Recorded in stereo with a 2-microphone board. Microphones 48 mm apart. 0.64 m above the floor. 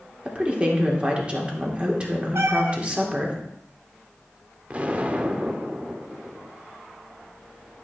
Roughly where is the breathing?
No breathing in this recording.